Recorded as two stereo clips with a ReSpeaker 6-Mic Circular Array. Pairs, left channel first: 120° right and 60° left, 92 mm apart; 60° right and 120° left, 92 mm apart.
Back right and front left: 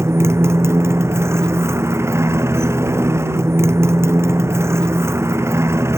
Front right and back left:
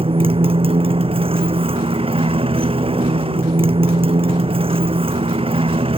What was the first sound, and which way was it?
A motorcycle, 120° left.